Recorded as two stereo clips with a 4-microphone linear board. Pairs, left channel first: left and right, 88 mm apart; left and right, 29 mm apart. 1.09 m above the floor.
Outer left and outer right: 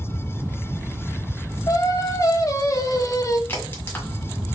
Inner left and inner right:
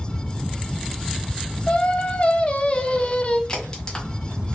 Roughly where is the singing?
Left.